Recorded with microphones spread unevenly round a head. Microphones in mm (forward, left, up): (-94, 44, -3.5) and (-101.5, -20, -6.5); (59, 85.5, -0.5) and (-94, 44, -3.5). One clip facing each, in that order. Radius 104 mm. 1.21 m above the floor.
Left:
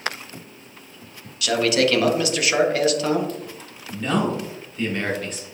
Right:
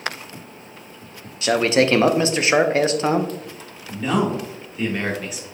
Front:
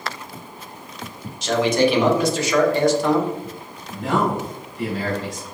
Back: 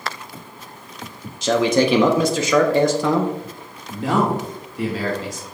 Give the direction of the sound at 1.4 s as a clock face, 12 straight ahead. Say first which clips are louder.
Right 2 dB, back 1 dB; 5 o'clock.